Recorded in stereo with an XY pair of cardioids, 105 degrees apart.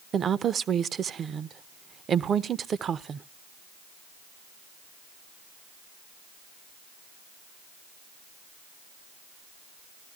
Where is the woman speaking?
50° right, 0.5 m.